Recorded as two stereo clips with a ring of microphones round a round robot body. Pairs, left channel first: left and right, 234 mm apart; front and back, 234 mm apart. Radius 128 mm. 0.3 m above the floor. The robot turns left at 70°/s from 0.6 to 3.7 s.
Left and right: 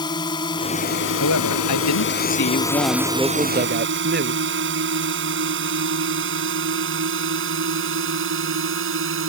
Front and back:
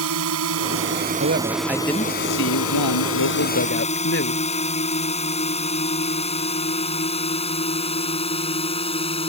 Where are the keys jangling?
No keys jangling in this recording.